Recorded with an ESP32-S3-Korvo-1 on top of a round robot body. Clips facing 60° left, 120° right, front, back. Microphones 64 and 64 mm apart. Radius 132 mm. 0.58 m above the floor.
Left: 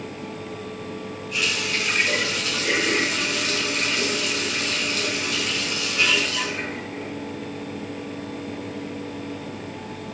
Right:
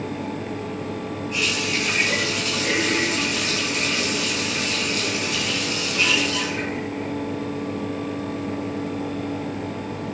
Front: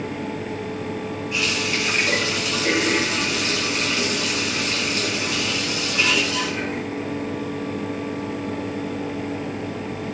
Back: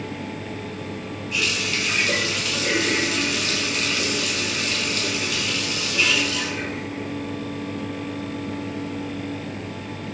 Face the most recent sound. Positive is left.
turn(degrees=-60)